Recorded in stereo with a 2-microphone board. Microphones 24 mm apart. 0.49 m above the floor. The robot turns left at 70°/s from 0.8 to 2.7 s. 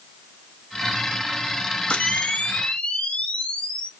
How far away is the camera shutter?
About 0.5 m.